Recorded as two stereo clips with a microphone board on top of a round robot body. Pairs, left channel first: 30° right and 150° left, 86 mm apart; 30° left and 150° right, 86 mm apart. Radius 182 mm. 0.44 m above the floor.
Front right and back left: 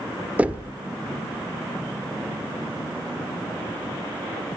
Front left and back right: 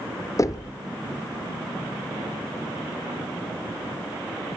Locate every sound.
0.4 s knocking: 75° left, 1.4 m